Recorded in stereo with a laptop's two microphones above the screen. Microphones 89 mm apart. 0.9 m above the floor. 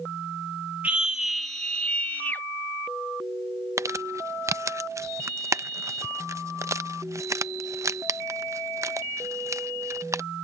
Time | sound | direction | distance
0.8 | a scream | 15° right (ahead or behind) | ?
3.8 | crumpling | 35° right (ahead or behind) | ?